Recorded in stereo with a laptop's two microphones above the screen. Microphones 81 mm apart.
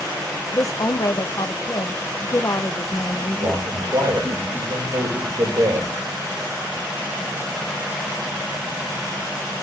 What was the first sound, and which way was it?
A woman speaking, 45° left (ahead or behind).